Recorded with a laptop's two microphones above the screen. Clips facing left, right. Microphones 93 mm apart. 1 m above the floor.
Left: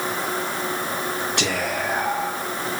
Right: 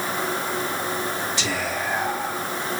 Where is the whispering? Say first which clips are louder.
Left 2 dB; 60° left (ahead or behind), 0.5 m.